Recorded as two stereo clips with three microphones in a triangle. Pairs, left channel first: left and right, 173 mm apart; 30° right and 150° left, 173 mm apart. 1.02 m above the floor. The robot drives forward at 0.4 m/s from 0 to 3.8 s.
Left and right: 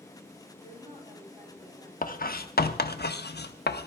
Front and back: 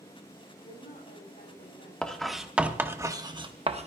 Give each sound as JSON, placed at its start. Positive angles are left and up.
{"t": 0.6, "sound": "a woman speaking", "azimuth_deg": -40, "distance_m": 7.0}
{"t": 2.0, "sound": "writing", "azimuth_deg": 55, "distance_m": 1.0}